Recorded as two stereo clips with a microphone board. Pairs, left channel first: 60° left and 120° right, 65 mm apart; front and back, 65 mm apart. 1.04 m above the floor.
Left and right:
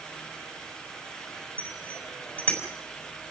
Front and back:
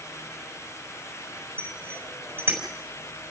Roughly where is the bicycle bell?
Behind left.